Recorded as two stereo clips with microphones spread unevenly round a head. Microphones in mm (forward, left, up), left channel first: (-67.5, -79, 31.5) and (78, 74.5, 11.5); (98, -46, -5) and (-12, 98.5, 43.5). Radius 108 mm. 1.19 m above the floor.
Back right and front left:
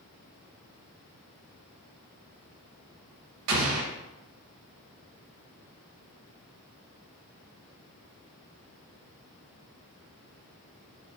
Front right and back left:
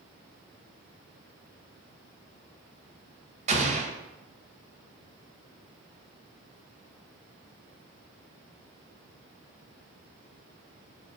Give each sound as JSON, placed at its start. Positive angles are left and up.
{"t": 3.5, "sound": "an explosion", "azimuth_deg": 80, "distance_m": 0.6}